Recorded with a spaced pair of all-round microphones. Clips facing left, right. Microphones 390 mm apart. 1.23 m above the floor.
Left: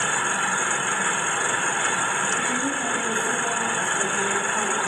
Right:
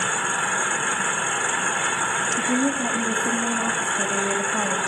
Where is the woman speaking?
80° right, 2 m.